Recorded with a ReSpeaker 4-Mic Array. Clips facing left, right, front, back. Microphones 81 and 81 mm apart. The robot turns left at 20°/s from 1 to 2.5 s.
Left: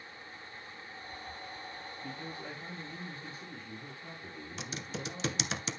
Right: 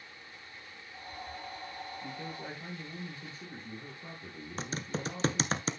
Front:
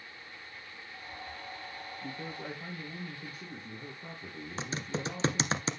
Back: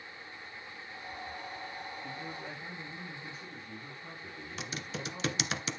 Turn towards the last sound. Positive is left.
turn(degrees=-50)